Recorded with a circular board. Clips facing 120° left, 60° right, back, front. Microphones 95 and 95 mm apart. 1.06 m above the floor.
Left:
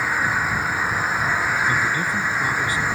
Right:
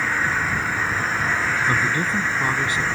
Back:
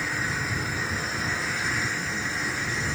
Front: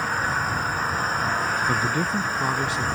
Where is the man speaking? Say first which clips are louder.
Even, front 7 dB; 10° left.